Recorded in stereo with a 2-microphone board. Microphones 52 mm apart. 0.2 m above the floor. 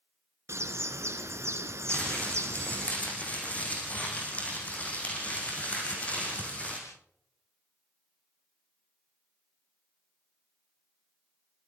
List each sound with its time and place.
0.5 s a bird: 60° right (ahead or behind), 2 m
1.9 s crumpling: 25° left (ahead or behind), 6.5 m